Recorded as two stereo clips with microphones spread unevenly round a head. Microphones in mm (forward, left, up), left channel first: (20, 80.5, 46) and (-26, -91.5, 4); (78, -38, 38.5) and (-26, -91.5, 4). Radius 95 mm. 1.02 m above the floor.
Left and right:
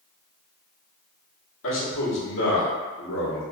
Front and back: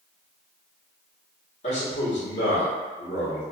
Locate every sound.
1.6 s a man speaking: 70° left, 1.4 m